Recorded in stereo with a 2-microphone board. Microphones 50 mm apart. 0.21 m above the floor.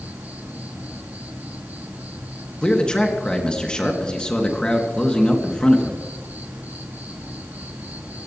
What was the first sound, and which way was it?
An insect, 35° right (ahead or behind).